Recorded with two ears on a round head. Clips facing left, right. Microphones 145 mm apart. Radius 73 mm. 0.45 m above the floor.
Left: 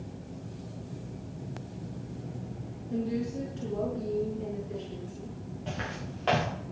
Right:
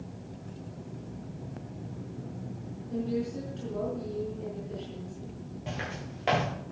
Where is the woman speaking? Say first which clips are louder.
Even; 5° left (ahead or behind), 5 m.